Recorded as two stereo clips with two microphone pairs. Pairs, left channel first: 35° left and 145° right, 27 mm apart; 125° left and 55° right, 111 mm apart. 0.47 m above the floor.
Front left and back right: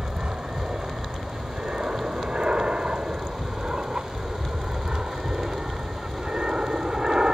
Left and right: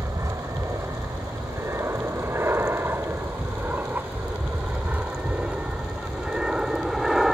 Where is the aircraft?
110° right; by 7.3 s 140° right.